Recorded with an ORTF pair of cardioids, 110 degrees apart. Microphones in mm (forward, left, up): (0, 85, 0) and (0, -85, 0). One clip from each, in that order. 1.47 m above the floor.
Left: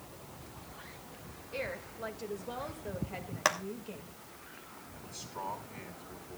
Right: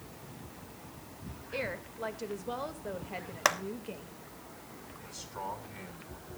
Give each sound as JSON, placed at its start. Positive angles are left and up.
{"t": 1.5, "sound": "a woman speaking", "azimuth_deg": -20, "distance_m": 2.0}
{"t": 3.5, "sound": "a clap", "azimuth_deg": -15, "distance_m": 1.1}
{"t": 5.0, "sound": "a man speaking", "azimuth_deg": -10, "distance_m": 5.0}